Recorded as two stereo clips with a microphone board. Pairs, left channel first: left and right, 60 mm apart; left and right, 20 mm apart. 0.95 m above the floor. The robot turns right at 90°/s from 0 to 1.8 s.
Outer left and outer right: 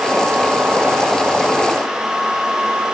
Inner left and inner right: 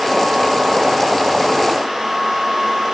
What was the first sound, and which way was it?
Only background noise.